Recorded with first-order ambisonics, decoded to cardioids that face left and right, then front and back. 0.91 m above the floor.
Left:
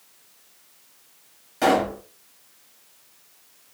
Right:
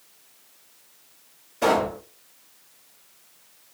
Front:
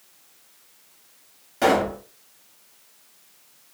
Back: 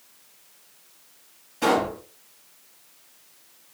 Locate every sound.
1.6 s a pop: 35° left, 2.5 m